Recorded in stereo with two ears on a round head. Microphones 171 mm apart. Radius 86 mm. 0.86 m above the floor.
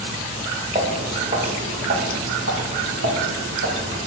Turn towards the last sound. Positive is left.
turn(degrees=-70)  # may be behind; listen again after turning